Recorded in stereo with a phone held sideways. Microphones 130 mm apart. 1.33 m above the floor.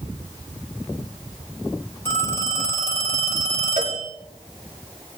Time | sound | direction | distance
2.0 | a phone ringing | 15° left (ahead or behind) | 9 m
3.8 | a cowbell | 80° right | 3 m